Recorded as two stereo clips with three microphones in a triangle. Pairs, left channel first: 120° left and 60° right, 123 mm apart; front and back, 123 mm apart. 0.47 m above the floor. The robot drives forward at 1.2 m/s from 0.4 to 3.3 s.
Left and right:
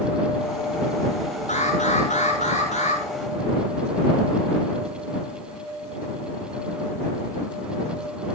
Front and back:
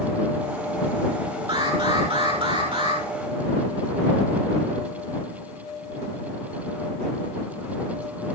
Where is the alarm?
135° left, 8.5 m; by 3.0 s 145° left, 10 m.